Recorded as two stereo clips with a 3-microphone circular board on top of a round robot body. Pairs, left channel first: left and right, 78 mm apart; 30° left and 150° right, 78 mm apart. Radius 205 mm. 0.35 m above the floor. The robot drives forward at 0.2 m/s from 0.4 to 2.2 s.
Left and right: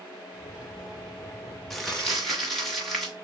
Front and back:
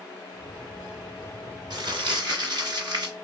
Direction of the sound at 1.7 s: 175° left.